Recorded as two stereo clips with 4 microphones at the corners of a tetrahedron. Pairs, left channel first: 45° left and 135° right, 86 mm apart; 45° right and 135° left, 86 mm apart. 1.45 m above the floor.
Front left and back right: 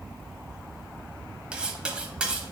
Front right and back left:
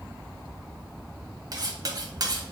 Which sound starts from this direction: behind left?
Cutlery clinking, at 1.5 s.